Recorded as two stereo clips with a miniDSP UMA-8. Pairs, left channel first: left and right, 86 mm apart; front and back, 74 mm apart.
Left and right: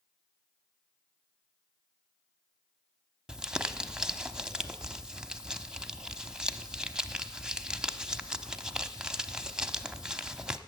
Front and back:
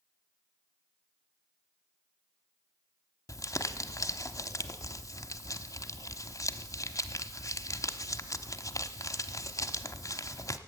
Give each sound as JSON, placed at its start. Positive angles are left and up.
{"t": 3.3, "sound": "crumpling", "azimuth_deg": -10, "distance_m": 0.8}